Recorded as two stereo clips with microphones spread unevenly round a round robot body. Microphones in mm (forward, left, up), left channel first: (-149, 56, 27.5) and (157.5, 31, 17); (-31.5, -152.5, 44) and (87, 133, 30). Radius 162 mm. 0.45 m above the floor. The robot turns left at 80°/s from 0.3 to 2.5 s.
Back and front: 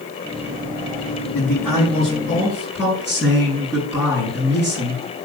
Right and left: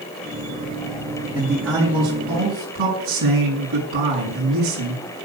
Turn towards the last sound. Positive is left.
turn(degrees=90)